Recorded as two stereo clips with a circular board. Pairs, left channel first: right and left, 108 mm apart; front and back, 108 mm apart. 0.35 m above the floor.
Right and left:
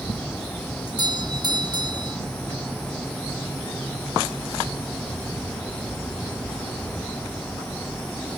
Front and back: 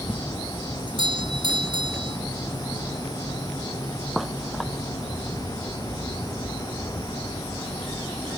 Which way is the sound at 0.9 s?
140° left.